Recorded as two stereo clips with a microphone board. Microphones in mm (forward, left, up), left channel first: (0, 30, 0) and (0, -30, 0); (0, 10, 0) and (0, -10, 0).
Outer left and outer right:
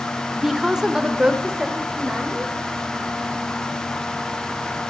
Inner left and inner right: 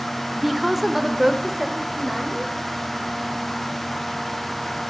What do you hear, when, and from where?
0.4 s a woman speaking: 5° right (ahead or behind), 0.8 m; by 2.5 s 20° right (ahead or behind), 1.4 m